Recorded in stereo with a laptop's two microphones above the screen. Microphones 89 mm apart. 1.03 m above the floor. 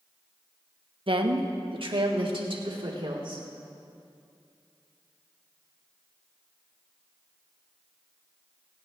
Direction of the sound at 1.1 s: 65° right (ahead or behind).